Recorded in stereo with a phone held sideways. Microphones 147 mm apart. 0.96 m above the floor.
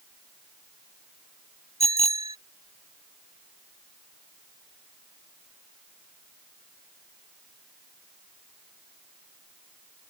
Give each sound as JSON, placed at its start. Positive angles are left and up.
{"t": 1.8, "sound": "a bicycle bell", "side_deg": 50}